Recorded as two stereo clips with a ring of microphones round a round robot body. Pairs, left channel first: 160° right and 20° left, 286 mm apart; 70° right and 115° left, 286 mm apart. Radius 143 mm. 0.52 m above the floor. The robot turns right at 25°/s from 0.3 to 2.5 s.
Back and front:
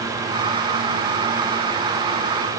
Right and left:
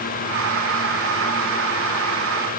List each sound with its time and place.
Only background noise.